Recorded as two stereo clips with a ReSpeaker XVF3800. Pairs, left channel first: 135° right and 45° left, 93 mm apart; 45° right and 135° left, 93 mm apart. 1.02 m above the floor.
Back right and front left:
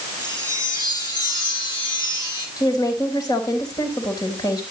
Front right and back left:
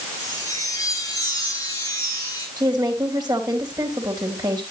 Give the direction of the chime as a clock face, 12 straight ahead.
3 o'clock.